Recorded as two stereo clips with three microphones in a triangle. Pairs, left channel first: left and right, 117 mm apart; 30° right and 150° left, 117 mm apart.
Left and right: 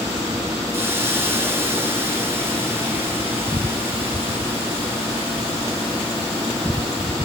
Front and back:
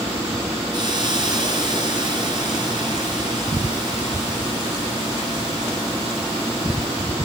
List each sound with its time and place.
0.7 s a hiss: 160° right, 7 m